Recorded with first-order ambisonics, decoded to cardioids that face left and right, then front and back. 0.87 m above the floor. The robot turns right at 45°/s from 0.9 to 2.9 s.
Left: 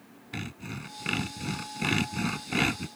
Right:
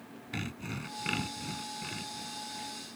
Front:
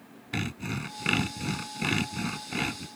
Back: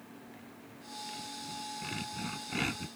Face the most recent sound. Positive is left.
turn(degrees=90)